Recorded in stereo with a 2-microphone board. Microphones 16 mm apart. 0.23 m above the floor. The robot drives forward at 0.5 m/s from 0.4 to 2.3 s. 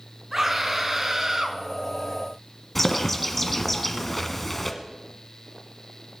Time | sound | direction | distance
0.3 | a scream | 35° right (ahead or behind) | 2.5 m
2.8 | a bird | 10° left (ahead or behind) | 1.3 m